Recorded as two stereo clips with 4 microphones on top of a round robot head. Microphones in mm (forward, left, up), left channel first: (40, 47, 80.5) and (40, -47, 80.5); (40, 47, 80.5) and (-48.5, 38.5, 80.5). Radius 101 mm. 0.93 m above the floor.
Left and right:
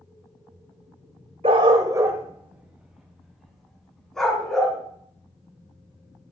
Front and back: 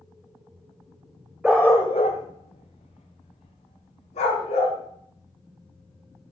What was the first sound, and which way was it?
A dog barking, 90° right.